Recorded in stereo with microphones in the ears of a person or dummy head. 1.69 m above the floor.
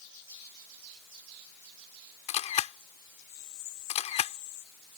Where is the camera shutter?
35° left (ahead or behind).